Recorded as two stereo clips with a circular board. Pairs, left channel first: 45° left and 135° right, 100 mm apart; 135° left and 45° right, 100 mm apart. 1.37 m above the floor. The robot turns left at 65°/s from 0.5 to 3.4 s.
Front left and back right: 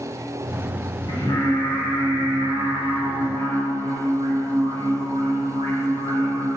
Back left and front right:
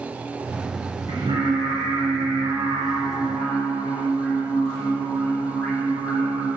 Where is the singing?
5° left, 4.5 m; by 6.5 s 150° right, 4.5 m.